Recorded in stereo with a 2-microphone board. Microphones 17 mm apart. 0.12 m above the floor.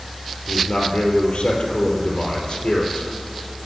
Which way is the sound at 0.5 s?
65° left (ahead or behind).